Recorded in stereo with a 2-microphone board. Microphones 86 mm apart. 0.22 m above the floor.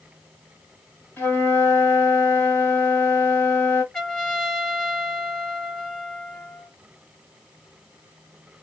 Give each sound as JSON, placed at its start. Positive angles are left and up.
{"t": 1.2, "sound": "a flute", "side_deg": 20, "distance_m": 1.5}
{"t": 3.9, "sound": "a trumpet", "side_deg": 10, "distance_m": 1.8}